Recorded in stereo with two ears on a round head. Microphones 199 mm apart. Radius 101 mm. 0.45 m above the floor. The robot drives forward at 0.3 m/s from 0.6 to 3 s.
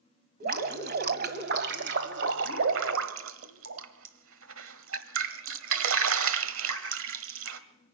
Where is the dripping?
40° right (ahead or behind), 1.7 m; by 7.6 s 60° right (ahead or behind), 1.2 m.